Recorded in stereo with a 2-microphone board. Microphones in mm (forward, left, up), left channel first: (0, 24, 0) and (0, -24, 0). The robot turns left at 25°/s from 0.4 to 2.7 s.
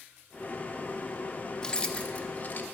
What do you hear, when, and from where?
1.6 s keys jangling: 20° left (ahead or behind), 0.8 m; by 2.6 s 45° left (ahead or behind), 0.8 m